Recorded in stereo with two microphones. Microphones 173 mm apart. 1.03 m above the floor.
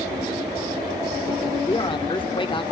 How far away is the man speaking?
About 1.0 m.